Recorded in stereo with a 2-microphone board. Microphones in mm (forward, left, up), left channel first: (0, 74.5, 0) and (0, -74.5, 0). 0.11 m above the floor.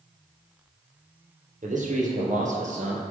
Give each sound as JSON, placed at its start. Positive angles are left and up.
{"t": 1.6, "sound": "a man speaking", "side_deg": -60, "distance_m": 2.5}